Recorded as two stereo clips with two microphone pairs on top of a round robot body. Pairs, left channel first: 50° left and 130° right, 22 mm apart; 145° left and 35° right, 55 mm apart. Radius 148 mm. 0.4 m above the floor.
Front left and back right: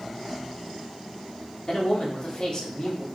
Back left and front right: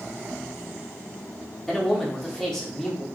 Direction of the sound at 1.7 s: 75° left.